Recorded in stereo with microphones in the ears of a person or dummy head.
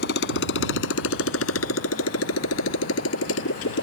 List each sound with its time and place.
0.0 s a motorcycle: 70° left (ahead or behind); by 3.9 s 75° left (ahead or behind)